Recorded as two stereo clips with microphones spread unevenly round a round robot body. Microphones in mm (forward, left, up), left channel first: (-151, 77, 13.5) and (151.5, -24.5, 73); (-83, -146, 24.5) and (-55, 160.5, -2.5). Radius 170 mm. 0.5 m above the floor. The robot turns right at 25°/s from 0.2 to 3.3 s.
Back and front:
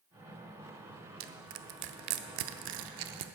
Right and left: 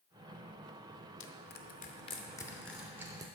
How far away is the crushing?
About 0.7 m.